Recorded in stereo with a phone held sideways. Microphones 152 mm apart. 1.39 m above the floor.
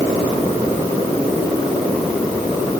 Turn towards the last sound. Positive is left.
No sound to turn to.